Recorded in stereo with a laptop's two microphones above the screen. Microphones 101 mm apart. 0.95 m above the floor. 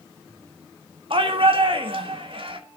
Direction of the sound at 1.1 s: 60° right (ahead or behind).